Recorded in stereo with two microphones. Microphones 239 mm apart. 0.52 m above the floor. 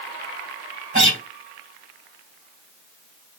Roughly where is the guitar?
Right.